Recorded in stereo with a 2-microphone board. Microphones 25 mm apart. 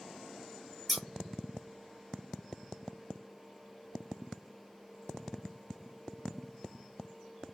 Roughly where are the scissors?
Centre.